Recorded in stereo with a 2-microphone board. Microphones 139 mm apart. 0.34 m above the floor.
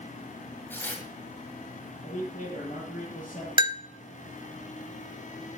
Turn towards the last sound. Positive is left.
turn(degrees=-35)  # may be behind; listen again after turning